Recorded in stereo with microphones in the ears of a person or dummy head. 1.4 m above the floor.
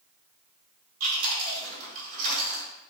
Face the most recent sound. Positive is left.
turn(degrees=-55)  # may be behind; listen again after turning